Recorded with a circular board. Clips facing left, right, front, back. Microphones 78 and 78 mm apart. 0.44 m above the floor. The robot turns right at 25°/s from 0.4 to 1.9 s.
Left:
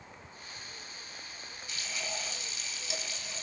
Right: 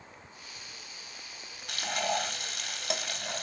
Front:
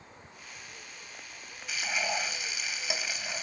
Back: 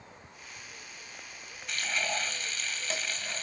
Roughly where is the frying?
Right.